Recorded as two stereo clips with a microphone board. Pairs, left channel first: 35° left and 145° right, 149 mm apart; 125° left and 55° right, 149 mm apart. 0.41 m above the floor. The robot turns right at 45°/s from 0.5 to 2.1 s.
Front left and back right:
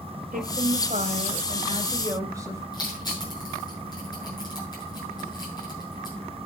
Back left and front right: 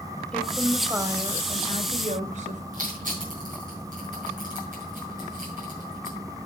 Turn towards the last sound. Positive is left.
turn(degrees=-30)